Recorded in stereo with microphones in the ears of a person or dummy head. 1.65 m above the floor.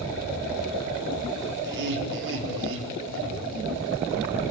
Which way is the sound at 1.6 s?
60° right (ahead or behind).